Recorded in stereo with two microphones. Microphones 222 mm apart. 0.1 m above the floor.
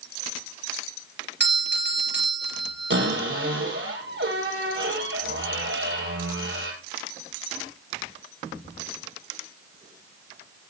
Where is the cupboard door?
55° right (ahead or behind), 3 m.